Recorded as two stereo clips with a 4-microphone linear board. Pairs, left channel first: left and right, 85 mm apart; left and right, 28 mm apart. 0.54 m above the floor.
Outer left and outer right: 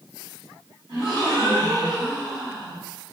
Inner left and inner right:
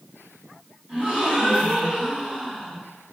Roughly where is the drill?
I don't hear a drill.